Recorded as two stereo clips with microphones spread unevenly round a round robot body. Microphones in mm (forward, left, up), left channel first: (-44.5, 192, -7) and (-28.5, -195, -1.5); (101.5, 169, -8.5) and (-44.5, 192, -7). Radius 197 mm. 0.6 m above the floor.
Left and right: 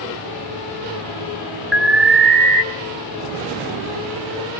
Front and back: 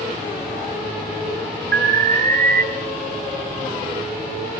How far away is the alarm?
About 1.6 m.